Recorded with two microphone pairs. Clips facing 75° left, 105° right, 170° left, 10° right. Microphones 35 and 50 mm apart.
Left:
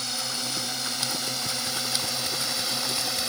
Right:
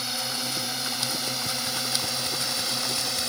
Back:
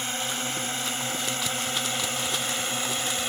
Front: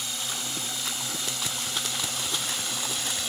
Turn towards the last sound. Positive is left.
turn(degrees=165)